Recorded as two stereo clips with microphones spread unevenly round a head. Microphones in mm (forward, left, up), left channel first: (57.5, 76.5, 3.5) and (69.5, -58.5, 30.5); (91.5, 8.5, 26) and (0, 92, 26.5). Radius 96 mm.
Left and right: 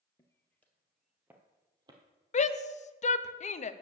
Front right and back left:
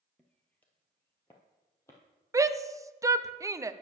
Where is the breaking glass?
I don't hear breaking glass.